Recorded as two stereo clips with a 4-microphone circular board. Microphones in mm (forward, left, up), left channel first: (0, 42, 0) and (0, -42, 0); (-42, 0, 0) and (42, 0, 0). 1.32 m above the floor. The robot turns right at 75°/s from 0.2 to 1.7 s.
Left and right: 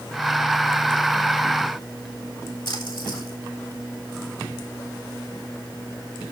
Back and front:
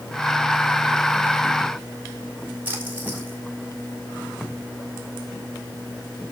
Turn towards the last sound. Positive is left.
turn(degrees=70)